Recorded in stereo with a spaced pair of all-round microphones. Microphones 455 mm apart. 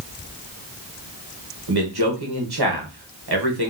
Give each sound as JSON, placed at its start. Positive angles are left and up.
{"t": 1.7, "sound": "a man speaking", "side_deg": -55, "distance_m": 0.9}